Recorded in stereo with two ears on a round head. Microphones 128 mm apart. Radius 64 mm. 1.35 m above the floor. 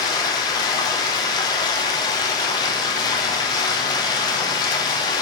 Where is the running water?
30° left (ahead or behind), 1.5 m.